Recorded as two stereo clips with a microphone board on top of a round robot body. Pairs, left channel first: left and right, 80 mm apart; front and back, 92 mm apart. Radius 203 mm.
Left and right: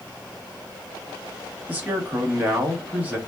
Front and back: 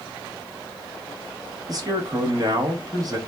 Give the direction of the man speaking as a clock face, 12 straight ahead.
5 o'clock.